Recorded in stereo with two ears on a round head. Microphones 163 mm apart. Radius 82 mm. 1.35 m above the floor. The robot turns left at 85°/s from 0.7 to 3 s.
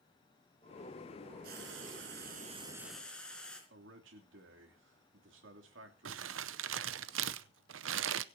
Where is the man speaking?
75° right (ahead or behind), 3 m.